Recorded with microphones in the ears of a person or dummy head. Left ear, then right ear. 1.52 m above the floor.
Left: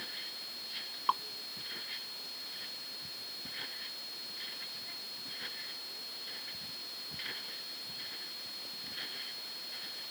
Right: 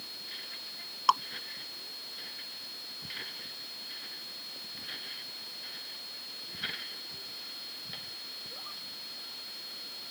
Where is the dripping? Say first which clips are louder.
Right 6 dB; 80° right.